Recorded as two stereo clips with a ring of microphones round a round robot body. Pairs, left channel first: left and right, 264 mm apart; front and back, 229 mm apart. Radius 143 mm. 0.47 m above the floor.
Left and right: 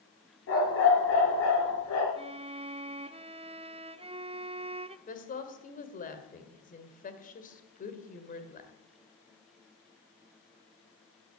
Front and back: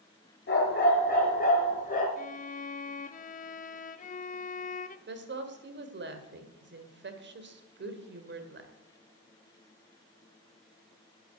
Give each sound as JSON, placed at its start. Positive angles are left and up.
{"t": 0.5, "sound": "a dog barking", "azimuth_deg": 45, "distance_m": 5.0}
{"t": 2.2, "sound": "a violin", "azimuth_deg": -35, "distance_m": 0.6}
{"t": 5.1, "sound": "a woman speaking", "azimuth_deg": 145, "distance_m": 1.9}